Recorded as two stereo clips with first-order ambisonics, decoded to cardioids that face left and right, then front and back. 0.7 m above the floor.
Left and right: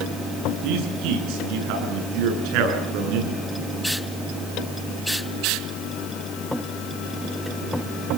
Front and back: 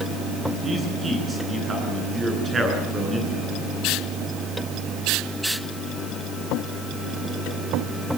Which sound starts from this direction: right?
A man speaking, at 0.6 s.